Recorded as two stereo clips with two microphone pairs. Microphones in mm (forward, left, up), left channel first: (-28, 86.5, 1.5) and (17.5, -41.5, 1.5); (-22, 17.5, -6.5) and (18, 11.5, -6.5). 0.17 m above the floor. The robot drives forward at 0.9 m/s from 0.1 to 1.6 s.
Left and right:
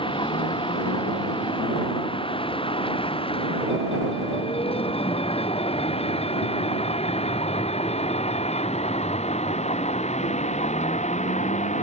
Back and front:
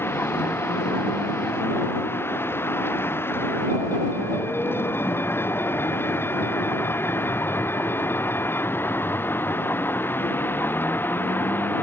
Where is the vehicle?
160° left; by 11.8 s 140° left.